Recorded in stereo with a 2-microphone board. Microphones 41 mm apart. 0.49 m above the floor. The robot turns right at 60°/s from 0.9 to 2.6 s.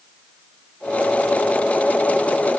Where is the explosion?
I don't hear an explosion.